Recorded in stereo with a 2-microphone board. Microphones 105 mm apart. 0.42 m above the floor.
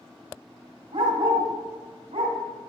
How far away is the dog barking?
About 1.4 m.